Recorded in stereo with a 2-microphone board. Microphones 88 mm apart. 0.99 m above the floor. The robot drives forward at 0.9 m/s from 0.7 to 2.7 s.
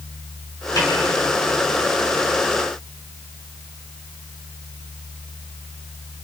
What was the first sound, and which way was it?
A snare drum, 40° left (ahead or behind).